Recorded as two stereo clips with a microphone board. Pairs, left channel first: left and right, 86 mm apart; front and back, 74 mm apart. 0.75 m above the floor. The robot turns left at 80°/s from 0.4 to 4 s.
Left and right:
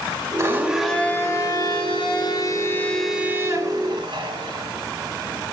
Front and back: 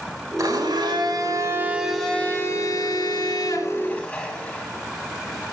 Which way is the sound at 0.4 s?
145° right.